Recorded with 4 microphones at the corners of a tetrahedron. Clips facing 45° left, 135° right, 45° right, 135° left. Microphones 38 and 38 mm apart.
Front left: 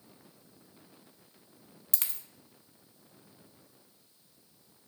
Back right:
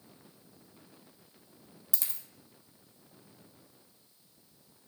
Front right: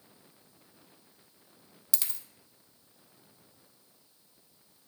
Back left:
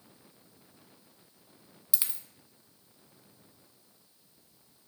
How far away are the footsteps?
I don't hear footsteps.